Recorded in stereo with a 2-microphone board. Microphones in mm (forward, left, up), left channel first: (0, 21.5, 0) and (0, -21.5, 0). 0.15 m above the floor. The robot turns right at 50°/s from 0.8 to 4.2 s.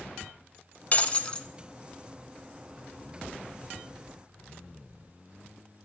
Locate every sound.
0.9 s breaking glass: 35° left (ahead or behind), 0.6 m; by 1.5 s 20° left (ahead or behind), 0.6 m